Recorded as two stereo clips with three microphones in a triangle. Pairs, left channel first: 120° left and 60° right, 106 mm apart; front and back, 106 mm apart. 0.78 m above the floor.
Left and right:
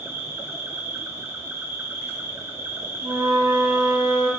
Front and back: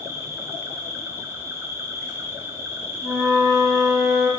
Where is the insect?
120° right, 1.1 m.